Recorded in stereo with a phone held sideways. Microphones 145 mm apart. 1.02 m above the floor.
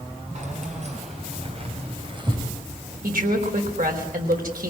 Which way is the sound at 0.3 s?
55° right (ahead or behind).